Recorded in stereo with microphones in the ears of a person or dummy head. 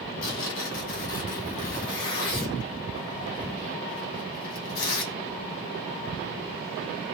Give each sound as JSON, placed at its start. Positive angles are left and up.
{"t": 0.2, "sound": "tearing paper", "side_deg": 55, "distance_m": 1.6}